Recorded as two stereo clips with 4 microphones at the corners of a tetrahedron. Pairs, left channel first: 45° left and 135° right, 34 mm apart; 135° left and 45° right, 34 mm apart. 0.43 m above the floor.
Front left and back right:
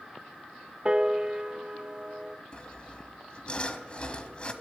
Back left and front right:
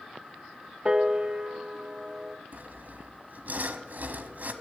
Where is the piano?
90° right, 0.7 m.